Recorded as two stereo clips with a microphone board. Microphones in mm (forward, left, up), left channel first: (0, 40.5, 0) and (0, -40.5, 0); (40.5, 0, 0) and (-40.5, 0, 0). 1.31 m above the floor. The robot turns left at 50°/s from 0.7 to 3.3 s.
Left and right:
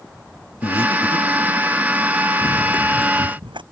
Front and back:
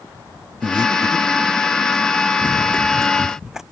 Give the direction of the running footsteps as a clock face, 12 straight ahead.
2 o'clock.